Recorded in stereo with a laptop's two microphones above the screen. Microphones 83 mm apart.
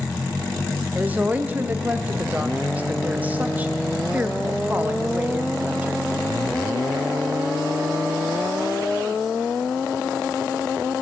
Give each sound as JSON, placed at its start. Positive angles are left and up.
{"t": 0.9, "sound": "a woman speaking", "side_deg": -20, "distance_m": 0.7}